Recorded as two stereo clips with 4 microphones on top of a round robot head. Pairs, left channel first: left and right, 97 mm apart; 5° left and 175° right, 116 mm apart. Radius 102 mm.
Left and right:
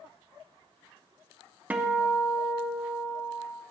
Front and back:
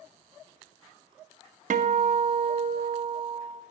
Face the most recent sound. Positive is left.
turn(degrees=-165)